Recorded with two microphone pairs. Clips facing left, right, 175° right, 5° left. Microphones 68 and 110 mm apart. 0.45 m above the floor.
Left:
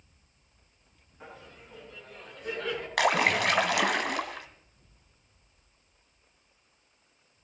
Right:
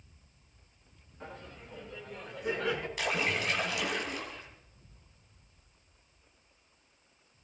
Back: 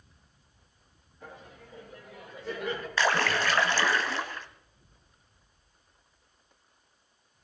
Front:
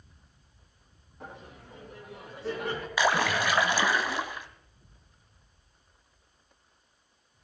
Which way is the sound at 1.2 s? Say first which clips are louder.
Right 1 dB, front 2 dB; 5° left.